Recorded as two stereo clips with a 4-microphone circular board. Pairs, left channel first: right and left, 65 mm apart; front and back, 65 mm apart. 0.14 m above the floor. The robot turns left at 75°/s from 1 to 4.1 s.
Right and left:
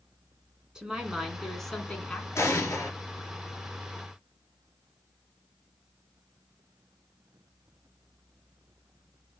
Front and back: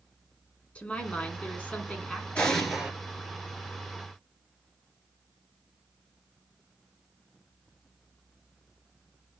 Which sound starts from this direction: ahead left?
A woman speaking, at 0.8 s.